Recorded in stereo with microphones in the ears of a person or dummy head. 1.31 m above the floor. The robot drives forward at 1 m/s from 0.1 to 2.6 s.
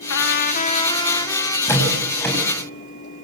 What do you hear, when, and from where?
0.1 s a trumpet: 85° left, 0.6 m; by 1.6 s 20° left (ahead or behind), 1.6 m
1.7 s a door slam: 20° left (ahead or behind), 7.5 m